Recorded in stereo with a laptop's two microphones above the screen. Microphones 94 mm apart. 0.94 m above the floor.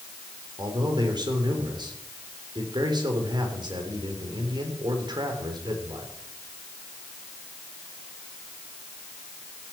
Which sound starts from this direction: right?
A man speaking, at 0.6 s.